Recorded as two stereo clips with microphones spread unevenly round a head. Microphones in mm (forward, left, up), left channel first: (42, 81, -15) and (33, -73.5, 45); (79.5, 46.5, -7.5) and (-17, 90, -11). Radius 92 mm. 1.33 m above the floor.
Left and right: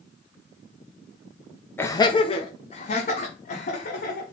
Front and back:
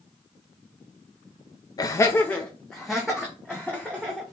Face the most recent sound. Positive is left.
turn(degrees=80)